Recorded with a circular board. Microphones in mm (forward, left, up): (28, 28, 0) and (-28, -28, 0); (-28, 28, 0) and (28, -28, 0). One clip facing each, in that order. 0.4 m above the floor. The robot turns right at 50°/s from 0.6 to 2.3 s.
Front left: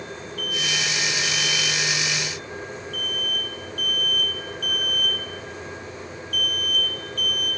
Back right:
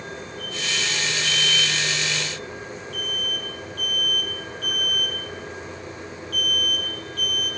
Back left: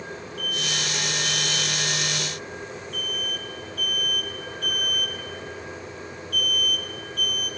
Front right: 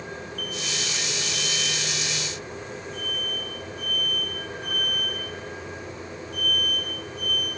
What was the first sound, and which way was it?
An alarm, 30° left.